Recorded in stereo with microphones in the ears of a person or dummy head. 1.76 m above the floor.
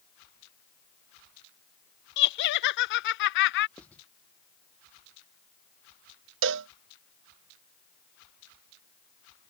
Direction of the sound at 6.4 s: 60° right (ahead or behind).